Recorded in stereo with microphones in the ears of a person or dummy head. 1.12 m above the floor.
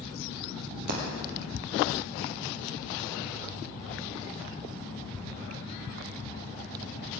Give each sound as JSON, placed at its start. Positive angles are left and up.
{"t": 0.9, "sound": "breaking glass", "side_deg": -60, "distance_m": 3.5}